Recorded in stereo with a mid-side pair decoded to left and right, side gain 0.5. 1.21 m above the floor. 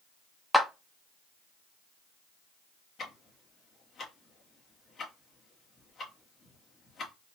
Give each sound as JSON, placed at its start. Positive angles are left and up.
{"t": 0.5, "sound": "a clap", "azimuth_deg": 5, "distance_m": 1.0}
{"t": 3.0, "sound": "ticking", "azimuth_deg": 50, "distance_m": 1.6}